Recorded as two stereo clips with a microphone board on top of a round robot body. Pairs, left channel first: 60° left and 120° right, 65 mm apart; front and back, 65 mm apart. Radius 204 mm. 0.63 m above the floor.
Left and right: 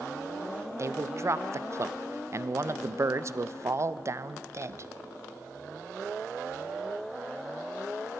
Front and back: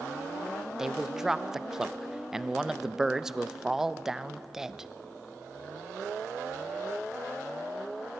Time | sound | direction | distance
0.8 | a man speaking | 100° right | 0.6 m